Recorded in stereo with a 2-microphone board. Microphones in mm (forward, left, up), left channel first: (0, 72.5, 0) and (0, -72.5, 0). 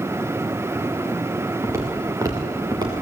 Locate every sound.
1.6 s footsteps: 20° right (ahead or behind), 4.5 m; by 3.0 s 30° right (ahead or behind), 3 m